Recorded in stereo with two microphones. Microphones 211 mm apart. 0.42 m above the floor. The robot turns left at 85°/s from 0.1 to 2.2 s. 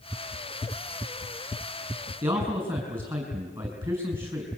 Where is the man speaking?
20° right (ahead or behind), 4.5 m.